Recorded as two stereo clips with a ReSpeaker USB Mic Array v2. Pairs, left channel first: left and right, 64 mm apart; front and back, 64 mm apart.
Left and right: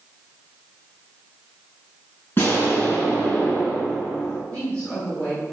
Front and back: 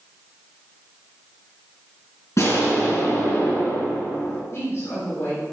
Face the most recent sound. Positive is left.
turn(degrees=25)